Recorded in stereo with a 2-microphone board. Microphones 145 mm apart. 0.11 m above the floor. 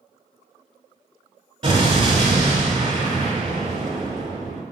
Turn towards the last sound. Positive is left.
turn(degrees=-35)  # may be behind; listen again after turning